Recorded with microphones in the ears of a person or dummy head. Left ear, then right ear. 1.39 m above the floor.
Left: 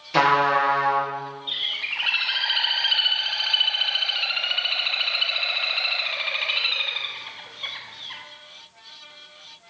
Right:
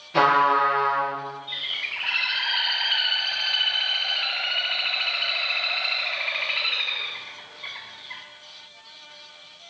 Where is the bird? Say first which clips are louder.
Left 3 dB; 30° left (ahead or behind), 1.1 m.